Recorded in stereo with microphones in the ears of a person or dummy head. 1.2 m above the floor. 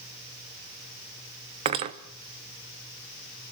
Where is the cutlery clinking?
25° right (ahead or behind), 0.7 m.